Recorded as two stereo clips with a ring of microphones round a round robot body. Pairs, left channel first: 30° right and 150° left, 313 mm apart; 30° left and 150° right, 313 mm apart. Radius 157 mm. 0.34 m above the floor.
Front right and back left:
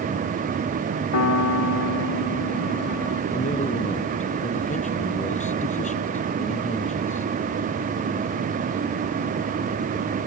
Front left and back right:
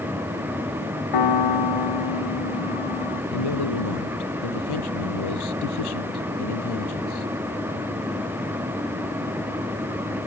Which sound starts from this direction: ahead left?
A man speaking, at 3.3 s.